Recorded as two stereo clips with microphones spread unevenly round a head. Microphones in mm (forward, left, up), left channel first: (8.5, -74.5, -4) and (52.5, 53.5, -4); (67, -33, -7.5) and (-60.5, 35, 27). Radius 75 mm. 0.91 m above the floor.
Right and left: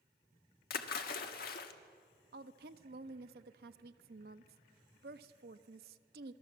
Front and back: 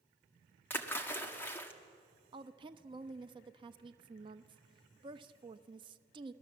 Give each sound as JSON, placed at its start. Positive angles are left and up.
{"t": 0.7, "sound": "a splash", "azimuth_deg": -105, "distance_m": 1.6}
{"t": 2.3, "sound": "a woman speaking", "azimuth_deg": 90, "distance_m": 0.8}